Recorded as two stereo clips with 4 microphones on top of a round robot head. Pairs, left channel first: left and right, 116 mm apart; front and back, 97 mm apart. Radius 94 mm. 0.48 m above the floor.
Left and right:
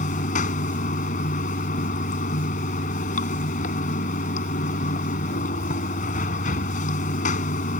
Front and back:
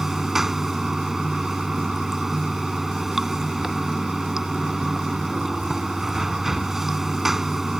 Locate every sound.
0.0 s running water: 95° left